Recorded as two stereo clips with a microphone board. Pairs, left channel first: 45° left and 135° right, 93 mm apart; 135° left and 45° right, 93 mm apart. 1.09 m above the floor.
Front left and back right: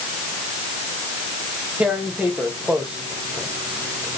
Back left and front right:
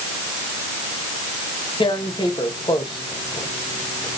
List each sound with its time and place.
1.8 s tearing paper: 150° left, 0.9 m